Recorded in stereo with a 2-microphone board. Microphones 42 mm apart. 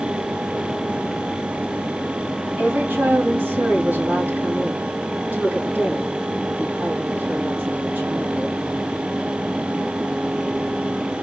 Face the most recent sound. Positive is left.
turn(degrees=-55)  # may be behind; listen again after turning